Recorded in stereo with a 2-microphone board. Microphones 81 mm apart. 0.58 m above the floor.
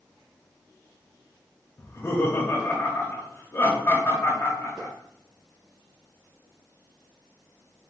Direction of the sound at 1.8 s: 30° left (ahead or behind).